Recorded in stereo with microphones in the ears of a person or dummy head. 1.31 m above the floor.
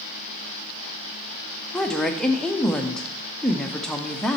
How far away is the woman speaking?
About 0.6 m.